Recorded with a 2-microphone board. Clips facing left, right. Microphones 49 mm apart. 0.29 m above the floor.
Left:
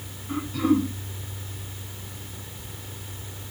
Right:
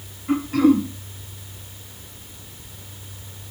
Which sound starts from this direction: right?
Throat clearing, at 0.3 s.